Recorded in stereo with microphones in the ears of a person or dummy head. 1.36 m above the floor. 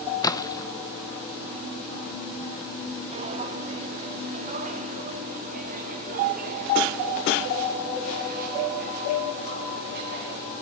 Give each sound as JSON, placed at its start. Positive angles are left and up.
{"t": 0.2, "sound": "a splash", "side_deg": 20, "distance_m": 0.9}
{"t": 3.1, "sound": "footsteps", "side_deg": -35, "distance_m": 2.5}